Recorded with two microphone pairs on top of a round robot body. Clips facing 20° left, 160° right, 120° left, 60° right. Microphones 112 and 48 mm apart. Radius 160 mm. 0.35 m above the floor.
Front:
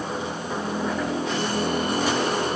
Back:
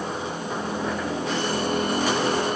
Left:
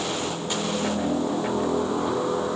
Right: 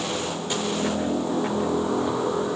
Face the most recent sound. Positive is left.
No sound to turn to.